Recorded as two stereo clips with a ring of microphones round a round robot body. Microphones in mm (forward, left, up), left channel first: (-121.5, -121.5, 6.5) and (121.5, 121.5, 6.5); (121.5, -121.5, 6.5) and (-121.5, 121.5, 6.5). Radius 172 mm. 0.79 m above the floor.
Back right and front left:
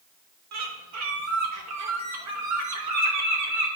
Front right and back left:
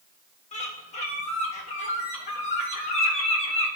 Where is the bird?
20° left, 1.5 m.